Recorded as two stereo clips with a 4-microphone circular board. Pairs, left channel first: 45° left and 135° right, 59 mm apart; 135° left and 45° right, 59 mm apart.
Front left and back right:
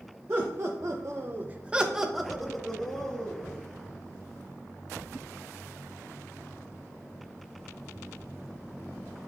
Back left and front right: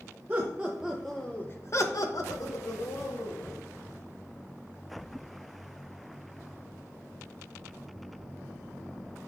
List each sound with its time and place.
0.3 s laughter: 100° right, 1.2 m; by 3.6 s 120° left, 2.5 m